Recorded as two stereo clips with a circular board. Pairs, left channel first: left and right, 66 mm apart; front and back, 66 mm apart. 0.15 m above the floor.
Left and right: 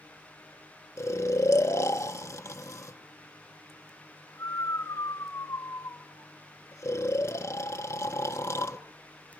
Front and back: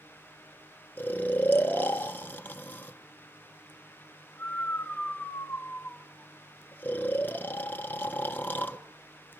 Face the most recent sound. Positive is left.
turn(degrees=60)